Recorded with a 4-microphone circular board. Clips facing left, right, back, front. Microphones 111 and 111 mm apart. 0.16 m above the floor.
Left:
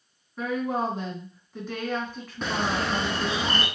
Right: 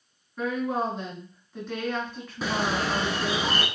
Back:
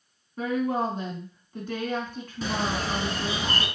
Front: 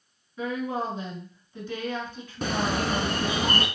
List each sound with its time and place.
0.4 s a woman speaking: 175° left, 2 m
2.4 s a bird: 5° right, 0.8 m